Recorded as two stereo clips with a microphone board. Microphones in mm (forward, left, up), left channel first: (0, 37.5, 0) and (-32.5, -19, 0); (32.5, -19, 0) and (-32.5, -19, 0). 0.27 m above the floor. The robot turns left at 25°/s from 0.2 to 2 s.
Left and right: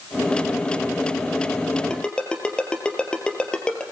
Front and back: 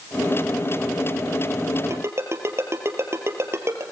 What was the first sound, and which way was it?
A ringtone, 140° left.